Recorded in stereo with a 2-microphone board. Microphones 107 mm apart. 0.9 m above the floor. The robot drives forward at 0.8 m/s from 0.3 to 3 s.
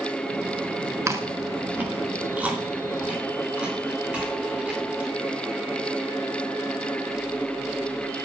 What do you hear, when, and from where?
1.1 s chewing: 30° right (ahead or behind), 1.0 m; by 5.1 s 10° right (ahead or behind), 2.5 m